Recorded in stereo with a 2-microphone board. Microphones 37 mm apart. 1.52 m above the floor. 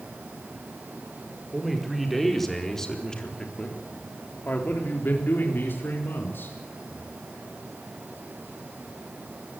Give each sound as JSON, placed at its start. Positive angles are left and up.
{"t": 1.5, "sound": "a man speaking", "side_deg": -5, "distance_m": 5.0}